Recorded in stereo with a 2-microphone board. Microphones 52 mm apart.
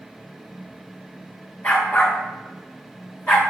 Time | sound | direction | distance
1.6 | a dog barking | 40° left (ahead or behind) | 4 m